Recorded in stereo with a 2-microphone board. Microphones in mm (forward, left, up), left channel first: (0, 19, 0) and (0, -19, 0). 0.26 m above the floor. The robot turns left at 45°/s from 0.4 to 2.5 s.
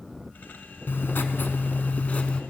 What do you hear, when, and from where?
0.9 s writing: 105° left, 0.6 m; by 2.4 s 35° left, 0.6 m